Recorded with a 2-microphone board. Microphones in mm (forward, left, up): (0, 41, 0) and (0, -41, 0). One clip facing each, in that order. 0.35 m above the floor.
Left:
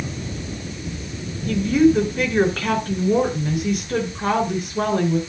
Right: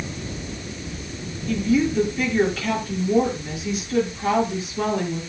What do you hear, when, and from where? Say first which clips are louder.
1.5 s a woman speaking: left 5 dB; 50° left (ahead or behind), 4.5 m